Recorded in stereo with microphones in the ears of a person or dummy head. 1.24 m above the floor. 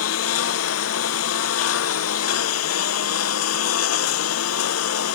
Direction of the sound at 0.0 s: 80° left.